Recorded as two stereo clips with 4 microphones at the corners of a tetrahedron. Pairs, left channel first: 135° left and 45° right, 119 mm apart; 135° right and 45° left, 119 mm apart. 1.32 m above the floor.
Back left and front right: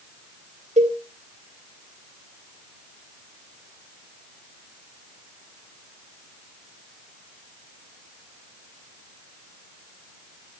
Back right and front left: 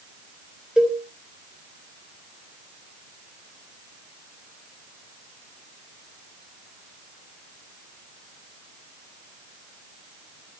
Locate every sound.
0.8 s a cowbell: 35° right, 4 m